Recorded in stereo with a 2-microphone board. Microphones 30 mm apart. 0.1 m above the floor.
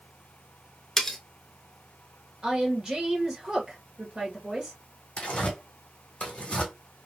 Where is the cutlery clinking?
10° left (ahead or behind), 0.8 m.